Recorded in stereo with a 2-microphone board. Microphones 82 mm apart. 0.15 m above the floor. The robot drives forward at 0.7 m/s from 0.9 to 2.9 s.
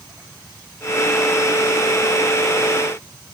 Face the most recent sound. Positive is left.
No sound to turn to.